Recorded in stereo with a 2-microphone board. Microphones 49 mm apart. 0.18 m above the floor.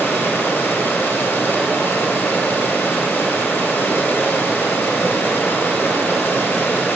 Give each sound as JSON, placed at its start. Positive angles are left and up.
{"t": 0.0, "sound": "running water", "side_deg": 50, "distance_m": 1.1}